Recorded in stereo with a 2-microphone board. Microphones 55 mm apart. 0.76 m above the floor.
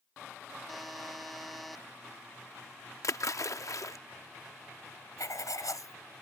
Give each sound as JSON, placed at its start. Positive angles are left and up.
{"t": 0.7, "sound": "a buzzer", "side_deg": 0}
{"t": 3.0, "sound": "a splash", "side_deg": 70}
{"t": 5.2, "sound": "writing", "side_deg": 85}